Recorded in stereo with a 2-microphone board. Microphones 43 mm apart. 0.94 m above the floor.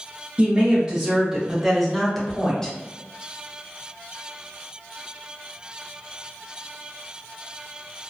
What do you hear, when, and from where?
0.4 s a woman speaking: 25° right (ahead or behind), 0.8 m; by 2.7 s 15° left (ahead or behind), 1.0 m